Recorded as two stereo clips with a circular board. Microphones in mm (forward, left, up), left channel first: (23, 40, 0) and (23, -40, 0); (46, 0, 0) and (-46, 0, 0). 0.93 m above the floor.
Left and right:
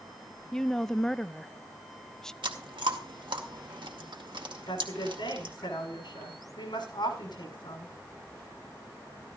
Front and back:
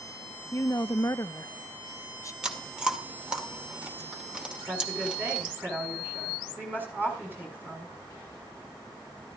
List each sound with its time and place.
0.5 s a woman speaking: 10° left, 0.5 m
2.4 s chewing: 100° right, 2.0 m
4.7 s a woman speaking: 110° left, 6.5 m